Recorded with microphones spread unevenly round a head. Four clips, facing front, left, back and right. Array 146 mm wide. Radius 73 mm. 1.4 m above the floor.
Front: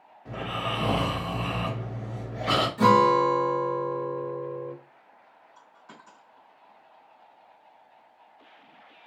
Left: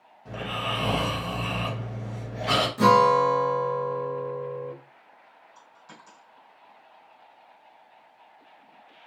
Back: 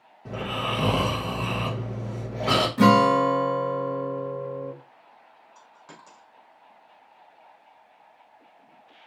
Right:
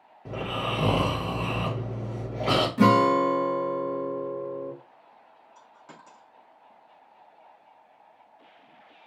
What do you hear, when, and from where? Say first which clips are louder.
0.2 s snoring: right 1 dB, back 2 dB; 130° right, 2.5 m
2.8 s a guitar: left 2 dB, back 1 dB; 145° right, 1.8 m
5.5 s a dropped coin: right 1 dB, back 2 dB; 145° right, 3.5 m